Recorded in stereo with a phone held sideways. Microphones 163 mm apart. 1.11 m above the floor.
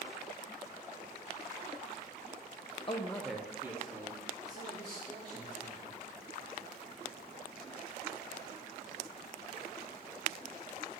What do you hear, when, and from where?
2.9 s a man speaking: 30° left (ahead or behind), 0.6 m; by 6.0 s 30° right (ahead or behind), 4 m